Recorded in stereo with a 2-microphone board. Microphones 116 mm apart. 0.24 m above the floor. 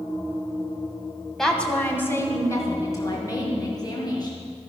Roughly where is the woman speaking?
Centre.